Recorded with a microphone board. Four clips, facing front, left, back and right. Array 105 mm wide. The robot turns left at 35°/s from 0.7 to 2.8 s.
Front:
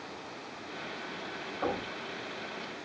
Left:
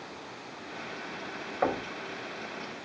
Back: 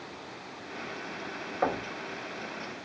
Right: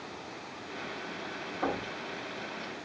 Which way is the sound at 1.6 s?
130° left.